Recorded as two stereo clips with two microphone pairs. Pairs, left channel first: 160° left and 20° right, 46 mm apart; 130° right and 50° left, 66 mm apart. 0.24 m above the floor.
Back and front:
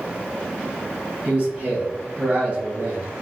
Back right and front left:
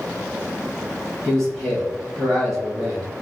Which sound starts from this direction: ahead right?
A man speaking, at 1.2 s.